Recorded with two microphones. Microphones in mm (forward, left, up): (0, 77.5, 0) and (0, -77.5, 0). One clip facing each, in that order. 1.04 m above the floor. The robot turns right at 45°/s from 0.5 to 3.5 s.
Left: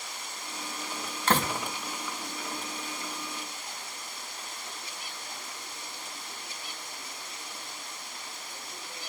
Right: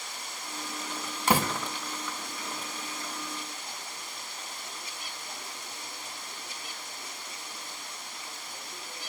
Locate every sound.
1.3 s a door slam: 15° right (ahead or behind), 1.1 m; by 1.5 s centre (ahead or behind), 1.1 m